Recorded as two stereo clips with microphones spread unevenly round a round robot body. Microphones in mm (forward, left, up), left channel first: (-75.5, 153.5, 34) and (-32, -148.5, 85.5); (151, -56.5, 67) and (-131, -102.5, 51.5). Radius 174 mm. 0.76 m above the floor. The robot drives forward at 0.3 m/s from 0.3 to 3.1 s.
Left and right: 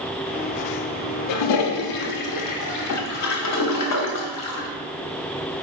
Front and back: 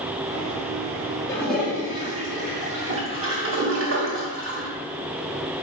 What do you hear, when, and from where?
1.3 s a toilet flushing: 90° left, 0.5 m; by 4.7 s 135° left, 0.8 m